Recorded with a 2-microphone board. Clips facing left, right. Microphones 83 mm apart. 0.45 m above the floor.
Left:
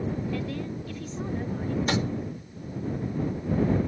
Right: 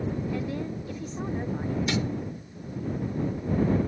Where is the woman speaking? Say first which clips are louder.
Right 1 dB; 20° right (ahead or behind).